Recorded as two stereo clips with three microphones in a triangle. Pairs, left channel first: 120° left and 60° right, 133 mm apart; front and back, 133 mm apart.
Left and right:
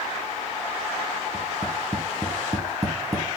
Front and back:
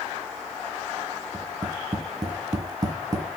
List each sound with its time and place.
1.3 s tapping: 120° right, 2.5 m